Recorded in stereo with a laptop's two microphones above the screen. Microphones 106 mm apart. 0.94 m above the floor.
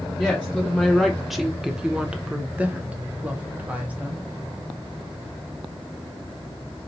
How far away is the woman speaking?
About 0.9 m.